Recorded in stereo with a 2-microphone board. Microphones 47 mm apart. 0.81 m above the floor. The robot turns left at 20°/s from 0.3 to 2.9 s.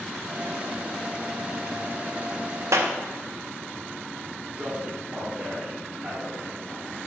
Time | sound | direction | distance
2.7 | a clap | 80° right | 0.6 m
4.6 | a man speaking | 35° right (ahead or behind) | 2 m